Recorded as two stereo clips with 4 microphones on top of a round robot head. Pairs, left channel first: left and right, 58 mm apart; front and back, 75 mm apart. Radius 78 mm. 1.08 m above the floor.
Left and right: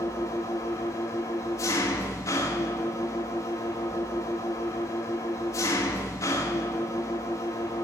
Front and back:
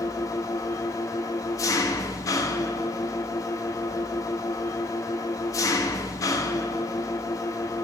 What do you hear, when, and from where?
0.0 s an engine running: 45° left, 0.8 m